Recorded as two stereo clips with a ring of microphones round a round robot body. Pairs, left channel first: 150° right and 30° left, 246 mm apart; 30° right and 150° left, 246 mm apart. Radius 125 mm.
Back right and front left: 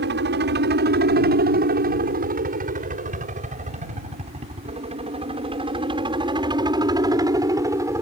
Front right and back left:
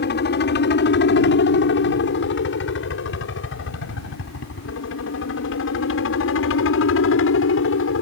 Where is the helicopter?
Straight ahead; by 8.0 s 45° right.